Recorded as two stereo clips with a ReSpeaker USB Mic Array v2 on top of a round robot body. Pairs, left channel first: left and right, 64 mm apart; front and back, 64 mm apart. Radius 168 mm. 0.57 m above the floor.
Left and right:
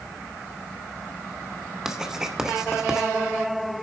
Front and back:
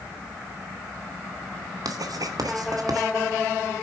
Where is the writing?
170° right, 2.5 m.